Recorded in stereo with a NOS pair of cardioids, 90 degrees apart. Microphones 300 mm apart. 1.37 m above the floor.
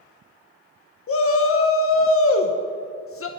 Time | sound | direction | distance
1.1 | a shout | 50° left | 1.0 m